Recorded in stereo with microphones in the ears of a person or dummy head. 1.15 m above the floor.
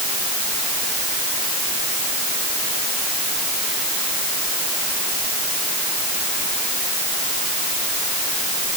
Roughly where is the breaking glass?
I don't hear breaking glass.